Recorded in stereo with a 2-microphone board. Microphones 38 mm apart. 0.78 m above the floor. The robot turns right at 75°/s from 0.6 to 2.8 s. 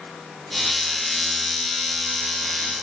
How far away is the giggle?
No giggle in this recording.